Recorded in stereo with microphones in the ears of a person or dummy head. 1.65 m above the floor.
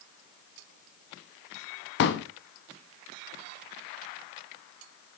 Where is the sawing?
I don't hear sawing.